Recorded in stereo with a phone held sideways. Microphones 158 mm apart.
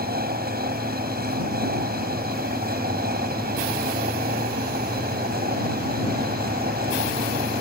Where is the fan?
80° right.